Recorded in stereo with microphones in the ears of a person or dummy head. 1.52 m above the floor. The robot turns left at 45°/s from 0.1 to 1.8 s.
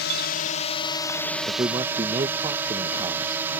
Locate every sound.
0.0 s a drone: 65° left; by 3.6 s 10° right
1.5 s a man speaking: 10° right (ahead or behind); by 3.6 s 25° right (ahead or behind)